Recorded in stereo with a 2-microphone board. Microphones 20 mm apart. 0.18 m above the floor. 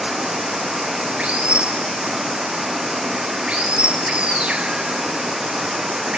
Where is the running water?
70° right (ahead or behind).